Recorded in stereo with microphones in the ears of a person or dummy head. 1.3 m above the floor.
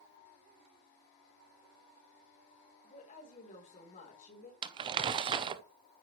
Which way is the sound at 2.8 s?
40° left (ahead or behind).